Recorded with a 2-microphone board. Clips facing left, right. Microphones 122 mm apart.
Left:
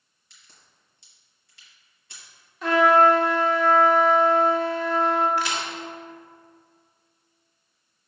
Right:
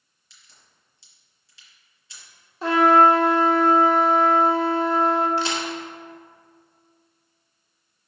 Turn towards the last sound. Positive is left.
turn(degrees=-30)  # may be behind; listen again after turning